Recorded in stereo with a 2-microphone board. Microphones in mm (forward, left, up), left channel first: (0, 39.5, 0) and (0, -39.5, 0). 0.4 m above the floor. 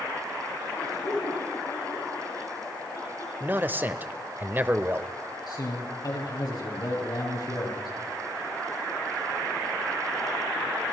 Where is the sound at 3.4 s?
25° right (ahead or behind), 1.1 m.